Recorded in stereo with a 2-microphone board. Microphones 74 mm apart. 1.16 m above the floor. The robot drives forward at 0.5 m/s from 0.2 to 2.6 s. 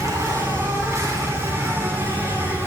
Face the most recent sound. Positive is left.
turn(degrees=-35)  # may be behind; listen again after turning